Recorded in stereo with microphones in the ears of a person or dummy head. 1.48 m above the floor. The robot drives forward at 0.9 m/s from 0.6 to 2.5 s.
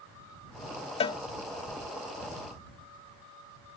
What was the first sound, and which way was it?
A cowbell, 25° left (ahead or behind).